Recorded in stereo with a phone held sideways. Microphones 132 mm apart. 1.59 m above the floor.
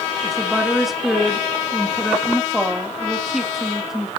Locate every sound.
0.2 s a woman speaking: centre (ahead or behind), 2.5 m